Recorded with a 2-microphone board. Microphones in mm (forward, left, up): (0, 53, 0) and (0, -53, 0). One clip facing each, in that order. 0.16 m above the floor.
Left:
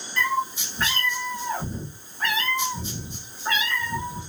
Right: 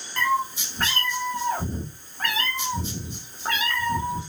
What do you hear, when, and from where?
0.2 s a cat meowing: 45° right (ahead or behind), 1.0 m